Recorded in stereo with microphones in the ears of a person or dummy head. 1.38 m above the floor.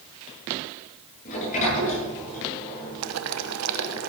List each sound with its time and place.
1.2 s a sliding door: 45° left (ahead or behind), 9 m
3.0 s boiling: 85° right, 1.0 m